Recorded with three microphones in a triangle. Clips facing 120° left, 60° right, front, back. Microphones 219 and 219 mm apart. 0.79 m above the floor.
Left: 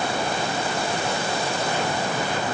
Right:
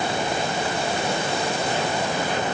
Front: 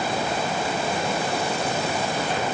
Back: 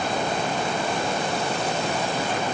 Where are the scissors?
No scissors in this recording.